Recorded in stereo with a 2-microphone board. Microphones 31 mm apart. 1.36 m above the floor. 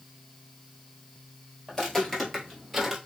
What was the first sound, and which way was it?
Footsteps, 20° left (ahead or behind).